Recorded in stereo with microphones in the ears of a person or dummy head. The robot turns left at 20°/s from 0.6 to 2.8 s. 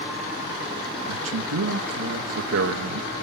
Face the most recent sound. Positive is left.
turn(degrees=-130)